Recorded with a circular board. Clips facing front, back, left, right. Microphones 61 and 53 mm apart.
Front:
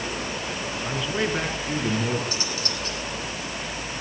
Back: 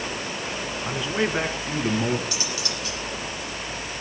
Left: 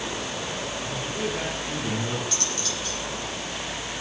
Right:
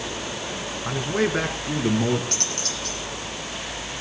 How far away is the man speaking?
About 4 m.